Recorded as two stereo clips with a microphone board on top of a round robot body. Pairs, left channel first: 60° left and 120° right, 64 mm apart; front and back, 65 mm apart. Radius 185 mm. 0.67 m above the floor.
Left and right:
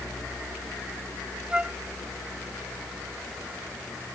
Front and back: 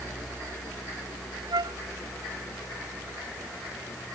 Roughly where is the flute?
Behind.